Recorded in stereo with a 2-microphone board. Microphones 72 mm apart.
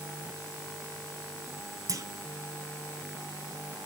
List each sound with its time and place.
1.9 s a clunk: 50° right (ahead or behind), 1.1 m